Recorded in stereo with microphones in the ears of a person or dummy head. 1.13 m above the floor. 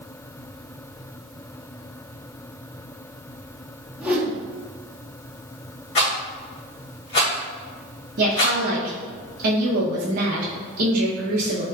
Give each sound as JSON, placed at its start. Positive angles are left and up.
{"t": 4.0, "sound": "a whoosh", "side_deg": -10, "distance_m": 0.9}
{"t": 6.0, "sound": "a rattle", "side_deg": 30, "distance_m": 2.0}
{"t": 8.2, "sound": "a woman speaking", "side_deg": -55, "distance_m": 0.9}